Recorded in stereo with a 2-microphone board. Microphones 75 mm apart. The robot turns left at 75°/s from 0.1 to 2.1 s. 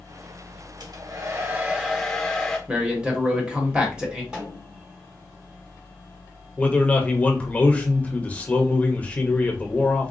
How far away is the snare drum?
About 1.5 m.